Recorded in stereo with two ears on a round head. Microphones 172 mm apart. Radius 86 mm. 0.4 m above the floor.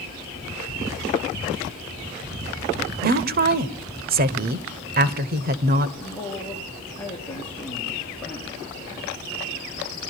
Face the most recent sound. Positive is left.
turn(degrees=10)  # may be behind; listen again after turning